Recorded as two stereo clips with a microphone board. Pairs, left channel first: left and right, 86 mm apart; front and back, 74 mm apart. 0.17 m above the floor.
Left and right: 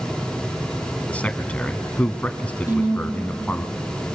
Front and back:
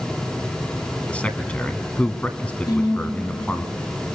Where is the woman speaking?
25° right, 6 m.